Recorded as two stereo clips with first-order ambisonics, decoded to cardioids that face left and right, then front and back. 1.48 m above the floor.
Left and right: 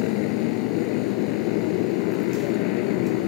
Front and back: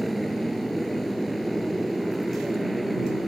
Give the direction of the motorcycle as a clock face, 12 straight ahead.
9 o'clock.